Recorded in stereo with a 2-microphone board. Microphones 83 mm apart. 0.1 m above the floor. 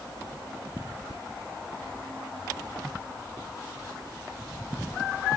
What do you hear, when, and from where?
Only background noise.